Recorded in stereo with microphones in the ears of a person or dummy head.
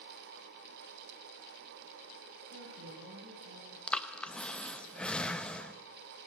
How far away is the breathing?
About 1.0 m.